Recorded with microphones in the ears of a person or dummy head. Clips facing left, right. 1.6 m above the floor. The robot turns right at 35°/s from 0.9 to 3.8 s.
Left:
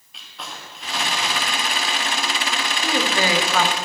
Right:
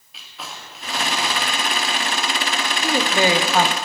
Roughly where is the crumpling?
Centre.